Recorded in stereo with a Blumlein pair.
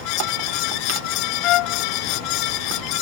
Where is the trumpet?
35° left.